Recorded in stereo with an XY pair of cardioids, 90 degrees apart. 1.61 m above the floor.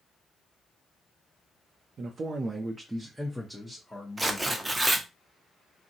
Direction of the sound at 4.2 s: 15° right.